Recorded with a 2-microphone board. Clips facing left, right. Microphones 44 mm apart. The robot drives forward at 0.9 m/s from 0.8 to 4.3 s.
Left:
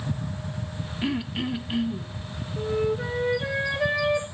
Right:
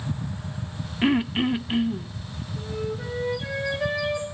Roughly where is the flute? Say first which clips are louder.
Left 6 dB; left.